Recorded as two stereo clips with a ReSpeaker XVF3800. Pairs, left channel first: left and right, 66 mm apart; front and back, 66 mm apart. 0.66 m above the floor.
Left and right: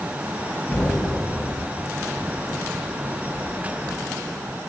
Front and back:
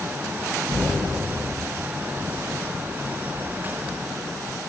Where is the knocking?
165° left, 5 m.